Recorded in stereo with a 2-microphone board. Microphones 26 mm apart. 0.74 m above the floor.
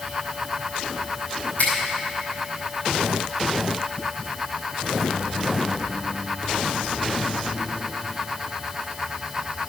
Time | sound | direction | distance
1.6 | a finger snap | 65° left (ahead or behind) | 4.5 m